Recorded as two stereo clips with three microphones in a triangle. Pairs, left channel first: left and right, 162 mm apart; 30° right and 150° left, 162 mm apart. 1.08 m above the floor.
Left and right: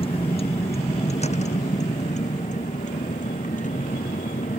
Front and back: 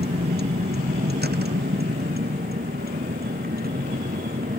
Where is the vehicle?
145° left; by 4.6 s 125° left.